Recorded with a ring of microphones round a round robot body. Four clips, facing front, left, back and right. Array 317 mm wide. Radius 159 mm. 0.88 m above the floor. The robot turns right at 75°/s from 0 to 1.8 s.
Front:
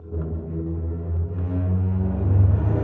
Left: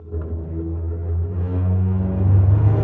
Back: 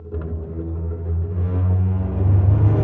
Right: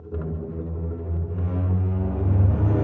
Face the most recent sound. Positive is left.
turn(degrees=140)